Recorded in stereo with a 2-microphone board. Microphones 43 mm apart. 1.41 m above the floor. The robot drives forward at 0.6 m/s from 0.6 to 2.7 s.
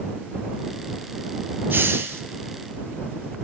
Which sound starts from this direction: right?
A hiss, at 1.7 s.